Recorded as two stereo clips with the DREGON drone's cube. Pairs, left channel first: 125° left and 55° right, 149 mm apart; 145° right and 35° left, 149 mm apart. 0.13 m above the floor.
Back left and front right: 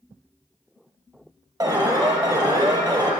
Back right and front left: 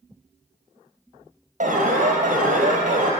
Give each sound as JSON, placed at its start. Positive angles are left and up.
{"t": 1.6, "sound": "an alarm", "azimuth_deg": 5, "distance_m": 2.5}